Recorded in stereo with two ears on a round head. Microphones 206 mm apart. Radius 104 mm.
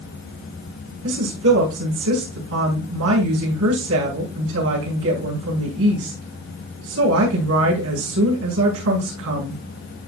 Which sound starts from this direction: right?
A woman speaking, at 1.0 s.